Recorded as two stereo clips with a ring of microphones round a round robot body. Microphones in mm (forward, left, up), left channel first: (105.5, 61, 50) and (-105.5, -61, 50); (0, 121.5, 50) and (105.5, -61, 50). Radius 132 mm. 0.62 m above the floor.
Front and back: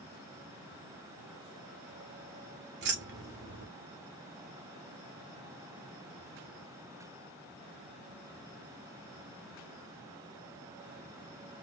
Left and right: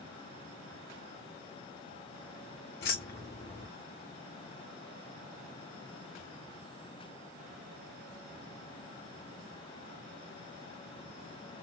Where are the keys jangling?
165° left, 1.0 m.